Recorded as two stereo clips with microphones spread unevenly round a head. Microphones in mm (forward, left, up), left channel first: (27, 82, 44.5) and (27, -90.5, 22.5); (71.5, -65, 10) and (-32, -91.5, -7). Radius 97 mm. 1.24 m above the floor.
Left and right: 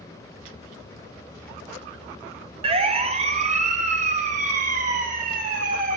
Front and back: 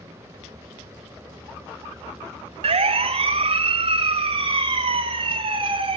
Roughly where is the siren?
Behind right.